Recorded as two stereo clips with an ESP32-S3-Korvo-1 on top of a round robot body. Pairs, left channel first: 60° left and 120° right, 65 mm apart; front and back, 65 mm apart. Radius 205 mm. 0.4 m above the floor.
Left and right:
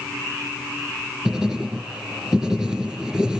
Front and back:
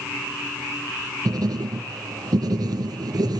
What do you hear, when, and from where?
1.2 s writing: 160° left, 4 m